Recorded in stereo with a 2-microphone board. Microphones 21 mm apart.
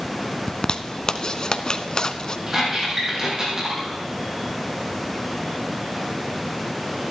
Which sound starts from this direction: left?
A zipper, at 0.5 s.